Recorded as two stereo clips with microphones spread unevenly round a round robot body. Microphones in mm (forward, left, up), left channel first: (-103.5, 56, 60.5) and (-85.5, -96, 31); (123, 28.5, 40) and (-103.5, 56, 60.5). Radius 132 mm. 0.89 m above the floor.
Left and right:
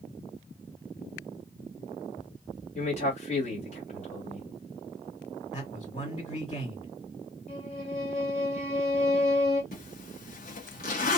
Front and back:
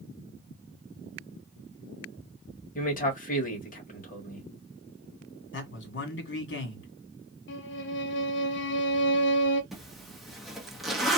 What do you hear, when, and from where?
2.8 s a man speaking: 40° left, 1.9 m
5.5 s a man speaking: 25° left, 2 m
7.5 s a violin: 35° left, 0.7 m
9.7 s a zipper: 80° left, 1.2 m